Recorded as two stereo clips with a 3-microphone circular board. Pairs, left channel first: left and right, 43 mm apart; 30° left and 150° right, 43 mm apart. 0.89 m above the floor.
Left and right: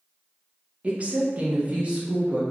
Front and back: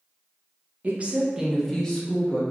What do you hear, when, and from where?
0.8 s a woman speaking: 130° right, 0.7 m; by 2.4 s 30° right, 1.0 m